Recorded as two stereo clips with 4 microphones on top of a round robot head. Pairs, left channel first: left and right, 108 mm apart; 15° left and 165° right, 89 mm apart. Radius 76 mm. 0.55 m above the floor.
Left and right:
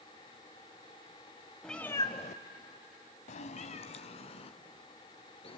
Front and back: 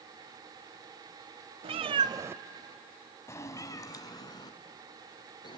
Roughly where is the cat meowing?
Behind.